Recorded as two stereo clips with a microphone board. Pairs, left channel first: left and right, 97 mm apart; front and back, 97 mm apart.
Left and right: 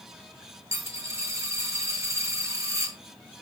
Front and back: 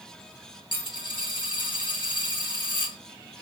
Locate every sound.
0.7 s a dropped coin: 30° right, 1.7 m